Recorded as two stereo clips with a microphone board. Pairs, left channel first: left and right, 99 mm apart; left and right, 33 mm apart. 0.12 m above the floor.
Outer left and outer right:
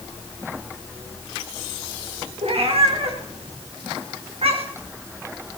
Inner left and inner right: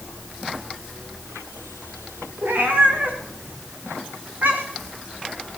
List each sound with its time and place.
2.4 s a cat meowing: 80° right, 4 m; by 4.9 s 75° right (ahead or behind), 3.5 m